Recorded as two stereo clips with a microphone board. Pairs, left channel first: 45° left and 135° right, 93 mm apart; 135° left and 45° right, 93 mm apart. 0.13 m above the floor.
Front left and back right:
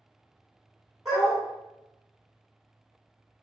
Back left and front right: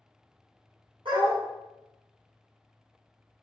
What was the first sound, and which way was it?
A dog barking, 50° right.